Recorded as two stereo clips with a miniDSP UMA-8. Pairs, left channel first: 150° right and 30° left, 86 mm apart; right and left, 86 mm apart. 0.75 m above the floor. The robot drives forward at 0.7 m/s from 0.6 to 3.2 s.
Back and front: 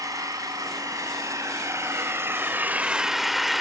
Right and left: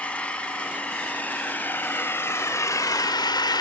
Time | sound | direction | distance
0.0 | an engine running | 15° right | 2.5 m